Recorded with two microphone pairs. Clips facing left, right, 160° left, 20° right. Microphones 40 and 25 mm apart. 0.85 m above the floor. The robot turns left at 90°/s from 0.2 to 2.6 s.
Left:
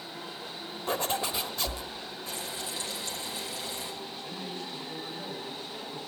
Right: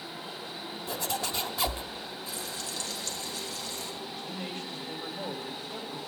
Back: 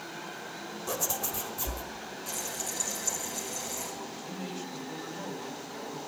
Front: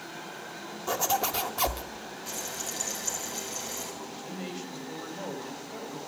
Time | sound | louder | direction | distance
0.9 | a zipper | left 4 dB, front 7 dB | 55° left | 1.3 m
2.3 | frying | left 3 dB, even | 50° left | 4 m
4.0 | a man speaking | right 1 dB, front 1 dB | 65° right | 4.5 m